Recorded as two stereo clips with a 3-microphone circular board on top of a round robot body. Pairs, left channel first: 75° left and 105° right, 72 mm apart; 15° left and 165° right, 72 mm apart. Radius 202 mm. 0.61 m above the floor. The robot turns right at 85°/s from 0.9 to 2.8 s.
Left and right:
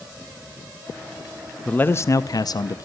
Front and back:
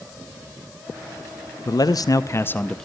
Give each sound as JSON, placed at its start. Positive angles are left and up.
{"t": 1.6, "sound": "a man speaking", "azimuth_deg": 0, "distance_m": 0.8}